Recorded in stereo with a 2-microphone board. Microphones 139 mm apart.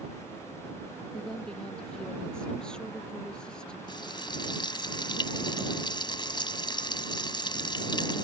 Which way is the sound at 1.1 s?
5° left (ahead or behind).